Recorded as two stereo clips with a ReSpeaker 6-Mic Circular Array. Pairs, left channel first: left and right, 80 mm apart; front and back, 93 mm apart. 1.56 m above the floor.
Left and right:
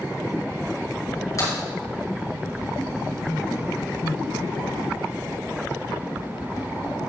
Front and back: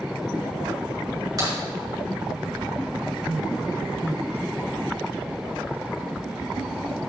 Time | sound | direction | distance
1.4 | a crack | 135° left | 4 m